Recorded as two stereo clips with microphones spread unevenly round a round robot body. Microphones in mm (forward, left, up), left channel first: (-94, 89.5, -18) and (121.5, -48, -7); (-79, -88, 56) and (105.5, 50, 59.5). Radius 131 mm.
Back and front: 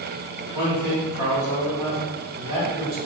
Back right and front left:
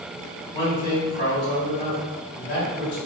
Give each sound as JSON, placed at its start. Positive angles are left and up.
{"t": 0.5, "sound": "a man speaking", "azimuth_deg": -110, "distance_m": 1.7}